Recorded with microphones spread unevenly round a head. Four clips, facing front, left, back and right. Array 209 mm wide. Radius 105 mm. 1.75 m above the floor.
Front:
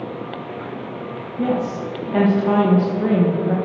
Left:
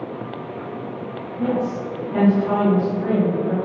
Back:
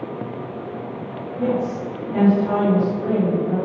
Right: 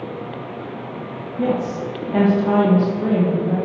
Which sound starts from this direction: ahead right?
A woman speaking, at 1.4 s.